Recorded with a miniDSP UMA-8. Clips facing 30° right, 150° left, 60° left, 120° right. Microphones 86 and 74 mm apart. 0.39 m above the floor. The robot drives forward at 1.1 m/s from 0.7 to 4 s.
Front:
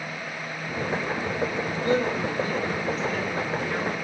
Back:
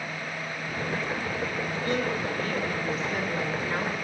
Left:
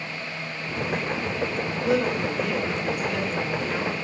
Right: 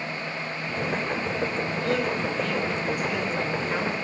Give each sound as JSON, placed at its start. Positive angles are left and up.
{"t": 1.8, "sound": "a woman speaking", "azimuth_deg": 5, "distance_m": 1.7}